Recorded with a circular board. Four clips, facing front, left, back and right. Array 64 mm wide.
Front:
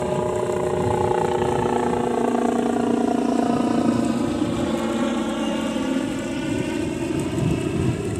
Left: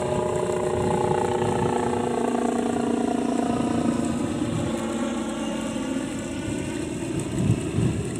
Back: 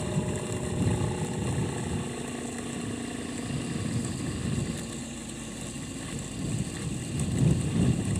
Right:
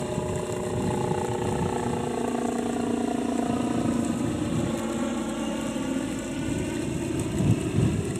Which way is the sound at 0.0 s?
30° left.